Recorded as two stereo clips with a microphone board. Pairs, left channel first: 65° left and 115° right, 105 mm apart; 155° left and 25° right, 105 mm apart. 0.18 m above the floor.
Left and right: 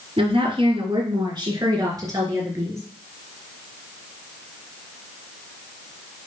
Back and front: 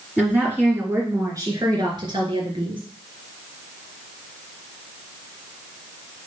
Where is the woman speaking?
100° right, 2.5 m; by 2.8 s 50° right, 3.5 m.